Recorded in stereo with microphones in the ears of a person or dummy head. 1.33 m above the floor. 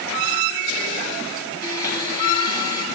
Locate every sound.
1.6 s a blender: 80° right, 9.5 m